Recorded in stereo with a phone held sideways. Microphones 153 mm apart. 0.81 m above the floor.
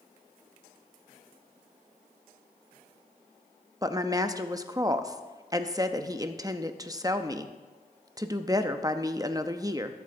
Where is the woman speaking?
25° right (ahead or behind), 0.7 m.